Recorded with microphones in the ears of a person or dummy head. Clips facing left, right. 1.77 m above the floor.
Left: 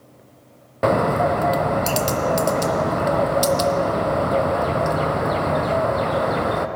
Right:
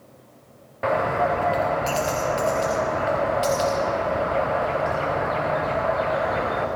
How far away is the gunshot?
No gunshot in this recording.